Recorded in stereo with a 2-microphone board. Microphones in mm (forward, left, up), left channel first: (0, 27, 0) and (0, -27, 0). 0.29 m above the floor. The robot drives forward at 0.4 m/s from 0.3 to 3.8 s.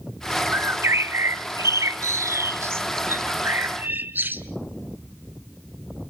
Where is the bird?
50° right (ahead or behind), 0.9 m; by 4.4 s 40° right (ahead or behind), 1.0 m.